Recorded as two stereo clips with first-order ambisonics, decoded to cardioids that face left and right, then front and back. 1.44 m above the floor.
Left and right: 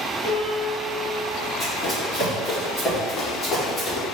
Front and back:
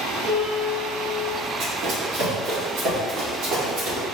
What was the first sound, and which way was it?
A piano, 105° left.